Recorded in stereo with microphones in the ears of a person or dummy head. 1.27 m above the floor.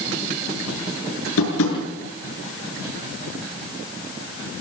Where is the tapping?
80° left, 7 m.